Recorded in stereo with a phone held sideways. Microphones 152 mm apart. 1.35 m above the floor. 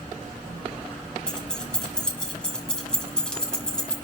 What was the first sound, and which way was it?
Keys jangling, 5° left (ahead or behind).